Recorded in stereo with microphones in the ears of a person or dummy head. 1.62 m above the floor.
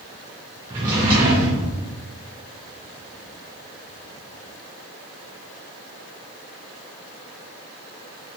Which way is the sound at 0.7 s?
15° right (ahead or behind).